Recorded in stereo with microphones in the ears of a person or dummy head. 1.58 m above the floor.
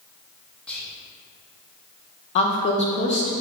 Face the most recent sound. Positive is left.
turn(degrees=35)  # may be behind; listen again after turning